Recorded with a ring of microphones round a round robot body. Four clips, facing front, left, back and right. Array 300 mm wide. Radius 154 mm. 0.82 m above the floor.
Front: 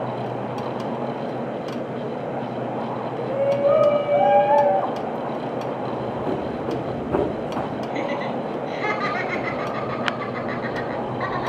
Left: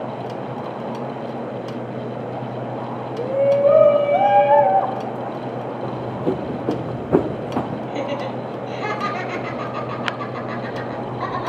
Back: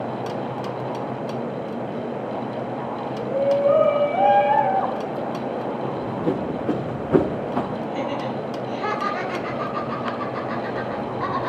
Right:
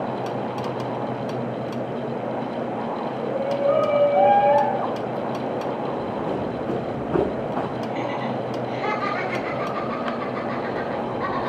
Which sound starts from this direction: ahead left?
Laughter, at 7.9 s.